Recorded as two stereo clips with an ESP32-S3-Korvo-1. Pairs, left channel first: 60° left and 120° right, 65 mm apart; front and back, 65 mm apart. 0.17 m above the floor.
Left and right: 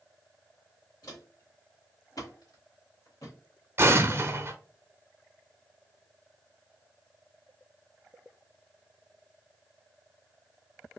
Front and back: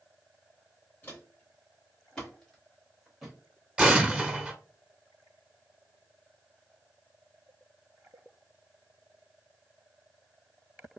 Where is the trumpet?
I don't hear a trumpet.